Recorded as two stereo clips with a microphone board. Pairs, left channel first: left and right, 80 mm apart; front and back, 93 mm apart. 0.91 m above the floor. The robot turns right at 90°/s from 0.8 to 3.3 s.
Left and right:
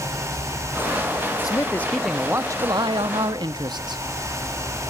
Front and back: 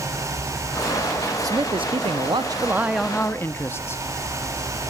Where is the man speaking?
130° left, 1.0 m; by 4.0 s 65° right, 1.0 m.